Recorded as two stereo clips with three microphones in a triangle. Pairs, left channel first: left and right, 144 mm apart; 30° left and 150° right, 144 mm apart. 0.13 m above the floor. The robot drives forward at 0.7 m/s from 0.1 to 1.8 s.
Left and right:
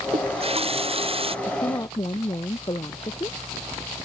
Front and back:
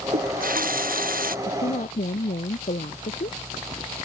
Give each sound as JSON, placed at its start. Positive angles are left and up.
{"t": 0.1, "sound": "a running tap", "azimuth_deg": -135}
{"t": 1.4, "sound": "a woman speaking", "azimuth_deg": 30}